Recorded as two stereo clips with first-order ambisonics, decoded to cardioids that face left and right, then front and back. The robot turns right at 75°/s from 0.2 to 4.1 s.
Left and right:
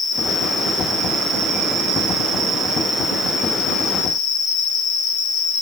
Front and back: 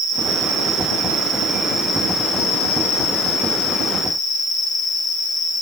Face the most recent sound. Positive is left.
turn(degrees=75)